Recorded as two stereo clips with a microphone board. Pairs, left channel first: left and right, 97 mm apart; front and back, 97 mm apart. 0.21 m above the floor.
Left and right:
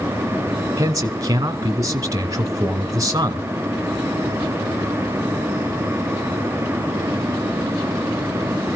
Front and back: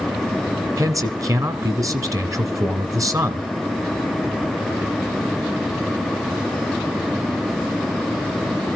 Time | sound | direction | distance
0.8 | a man speaking | 135° right | 2.0 m